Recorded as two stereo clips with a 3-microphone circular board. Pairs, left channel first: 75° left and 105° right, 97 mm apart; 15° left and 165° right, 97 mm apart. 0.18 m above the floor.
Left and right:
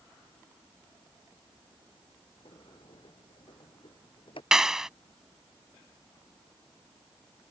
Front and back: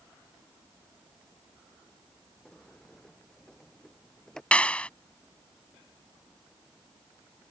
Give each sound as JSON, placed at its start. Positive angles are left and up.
{"t": 2.5, "sound": "a sliding door", "azimuth_deg": 100}
{"t": 4.5, "sound": "a clap", "azimuth_deg": -35}